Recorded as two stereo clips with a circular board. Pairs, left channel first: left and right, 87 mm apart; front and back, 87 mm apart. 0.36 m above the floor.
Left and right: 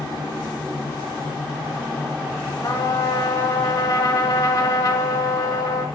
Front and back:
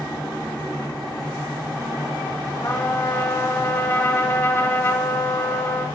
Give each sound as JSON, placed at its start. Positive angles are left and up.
{"t": 2.6, "sound": "a trumpet", "azimuth_deg": 65, "distance_m": 0.9}